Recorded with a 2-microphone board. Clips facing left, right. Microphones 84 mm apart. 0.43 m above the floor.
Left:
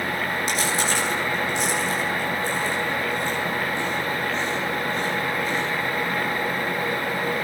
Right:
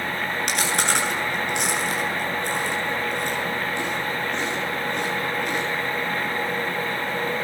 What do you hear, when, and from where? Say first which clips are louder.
0.5 s chewing: right 2 dB; 65° right (ahead or behind), 8.5 m